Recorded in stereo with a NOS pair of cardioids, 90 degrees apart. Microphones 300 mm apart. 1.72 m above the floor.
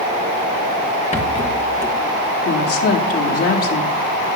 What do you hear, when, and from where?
1.1 s a rattle: 20° left, 2 m
2.5 s a woman speaking: 50° left, 4 m